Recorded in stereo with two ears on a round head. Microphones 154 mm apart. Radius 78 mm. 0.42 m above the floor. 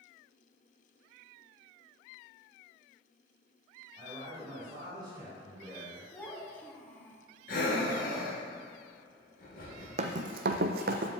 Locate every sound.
4.0 s a man speaking: 30° right (ahead or behind), 2.5 m
6.1 s a child speaking: 10° left (ahead or behind), 1.8 m
7.5 s breathing: 50° left (ahead or behind), 3 m
10.0 s running footsteps: 40° right (ahead or behind), 0.8 m; by 11.1 s 50° right (ahead or behind), 1.0 m